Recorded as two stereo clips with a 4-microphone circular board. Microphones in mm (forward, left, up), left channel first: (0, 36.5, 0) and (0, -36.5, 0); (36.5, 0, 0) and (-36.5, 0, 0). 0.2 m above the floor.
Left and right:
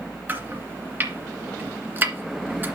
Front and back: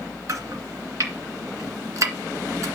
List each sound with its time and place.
0.3 s chopping: 145° right, 1.9 m